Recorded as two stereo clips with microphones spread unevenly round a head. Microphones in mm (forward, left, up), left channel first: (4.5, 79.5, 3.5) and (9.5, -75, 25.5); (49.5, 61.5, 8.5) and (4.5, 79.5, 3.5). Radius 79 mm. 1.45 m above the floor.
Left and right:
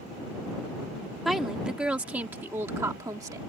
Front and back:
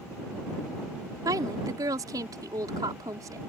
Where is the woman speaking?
175° right; by 3.4 s 160° right.